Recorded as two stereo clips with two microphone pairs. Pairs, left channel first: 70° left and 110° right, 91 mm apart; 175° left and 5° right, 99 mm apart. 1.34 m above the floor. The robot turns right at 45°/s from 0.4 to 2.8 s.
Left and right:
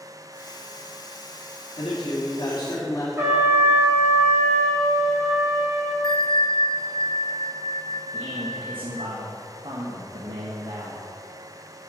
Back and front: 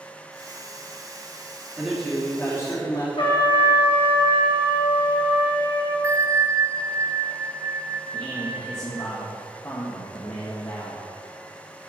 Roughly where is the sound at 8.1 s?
Behind right.